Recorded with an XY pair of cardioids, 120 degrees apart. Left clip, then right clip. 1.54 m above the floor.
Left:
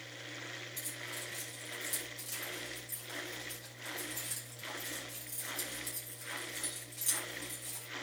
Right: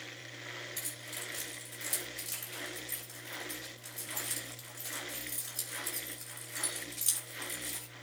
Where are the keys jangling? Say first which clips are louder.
Even; 30° right, 6 m.